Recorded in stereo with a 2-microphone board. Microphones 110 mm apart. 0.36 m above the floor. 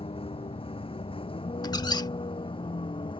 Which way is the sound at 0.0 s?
55° left (ahead or behind).